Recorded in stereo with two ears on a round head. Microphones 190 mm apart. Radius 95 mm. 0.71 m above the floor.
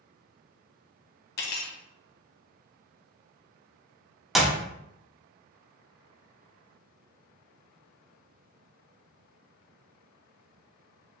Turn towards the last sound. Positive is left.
turn(degrees=0)  # may be behind; listen again after turning